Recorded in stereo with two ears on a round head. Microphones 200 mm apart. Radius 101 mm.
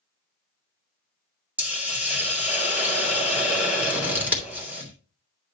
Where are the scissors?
10° right (ahead or behind), 3 m.